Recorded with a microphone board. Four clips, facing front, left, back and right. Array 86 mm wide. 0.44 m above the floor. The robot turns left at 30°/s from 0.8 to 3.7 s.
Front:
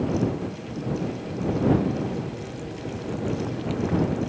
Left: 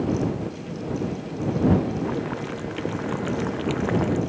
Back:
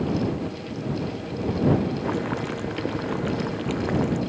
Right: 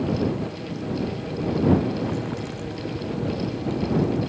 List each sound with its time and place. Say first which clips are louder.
2.0 s boiling: left 1 dB, back 5 dB; 165° left; by 4.2 s 115° left